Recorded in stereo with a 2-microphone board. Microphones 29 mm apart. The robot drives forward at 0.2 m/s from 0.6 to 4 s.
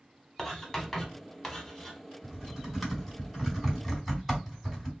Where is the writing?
15° left (ahead or behind), 1.0 m; by 2.0 s 10° left (ahead or behind), 1.2 m.